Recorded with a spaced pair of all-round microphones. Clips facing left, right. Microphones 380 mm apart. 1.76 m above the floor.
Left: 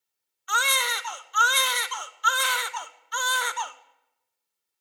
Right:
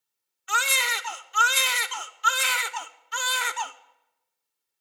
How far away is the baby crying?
About 0.7 m.